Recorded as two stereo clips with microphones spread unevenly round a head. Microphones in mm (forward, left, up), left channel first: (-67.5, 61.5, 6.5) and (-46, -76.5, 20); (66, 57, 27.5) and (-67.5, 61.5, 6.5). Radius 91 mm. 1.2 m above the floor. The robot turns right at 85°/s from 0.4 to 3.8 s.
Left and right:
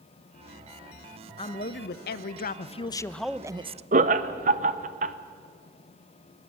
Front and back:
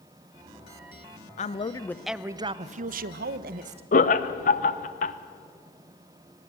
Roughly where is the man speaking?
Ahead left.